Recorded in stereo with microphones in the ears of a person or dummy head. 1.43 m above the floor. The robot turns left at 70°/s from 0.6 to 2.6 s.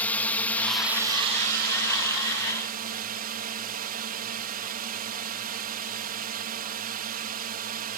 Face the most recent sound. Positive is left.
turn(degrees=-130)